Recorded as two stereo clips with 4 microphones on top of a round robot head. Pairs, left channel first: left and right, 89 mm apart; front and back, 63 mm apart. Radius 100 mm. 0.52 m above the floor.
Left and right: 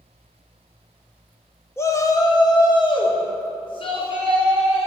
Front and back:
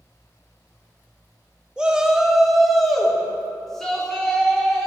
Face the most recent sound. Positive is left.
turn(degrees=80)